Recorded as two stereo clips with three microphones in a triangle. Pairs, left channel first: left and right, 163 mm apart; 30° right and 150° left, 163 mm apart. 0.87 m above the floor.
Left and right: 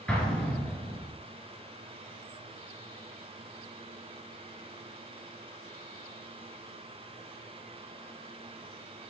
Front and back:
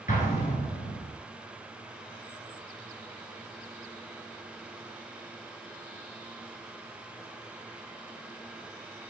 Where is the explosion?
5° left, 3 m.